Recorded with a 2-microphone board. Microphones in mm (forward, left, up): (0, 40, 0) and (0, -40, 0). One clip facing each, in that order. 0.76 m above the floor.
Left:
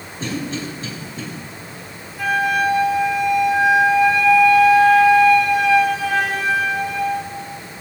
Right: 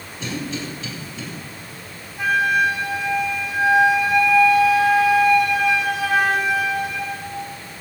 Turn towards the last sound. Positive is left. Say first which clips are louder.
# even
turn(degrees=-10)  # may be behind; listen again after turning